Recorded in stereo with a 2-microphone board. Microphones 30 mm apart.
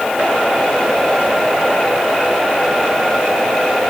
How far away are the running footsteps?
No running footsteps in this recording.